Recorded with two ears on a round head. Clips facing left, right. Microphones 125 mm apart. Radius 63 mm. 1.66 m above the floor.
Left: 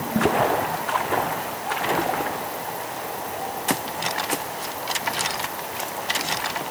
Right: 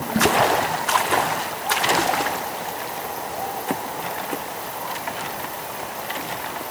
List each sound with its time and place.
Only background noise.